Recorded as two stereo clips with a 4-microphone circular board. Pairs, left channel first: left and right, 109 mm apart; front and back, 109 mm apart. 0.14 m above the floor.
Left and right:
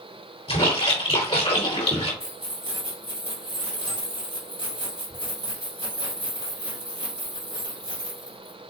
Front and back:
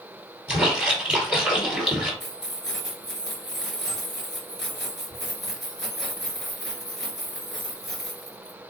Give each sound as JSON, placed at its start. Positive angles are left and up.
{"t": 0.5, "sound": "a splash", "azimuth_deg": 100, "distance_m": 2.5}
{"t": 2.2, "sound": "keys jangling", "azimuth_deg": -85, "distance_m": 1.8}